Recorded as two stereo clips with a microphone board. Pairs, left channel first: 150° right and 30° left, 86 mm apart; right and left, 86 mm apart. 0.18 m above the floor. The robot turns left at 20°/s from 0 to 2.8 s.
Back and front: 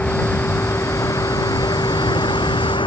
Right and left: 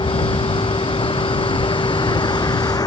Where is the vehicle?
75° right; by 2.9 s 130° right.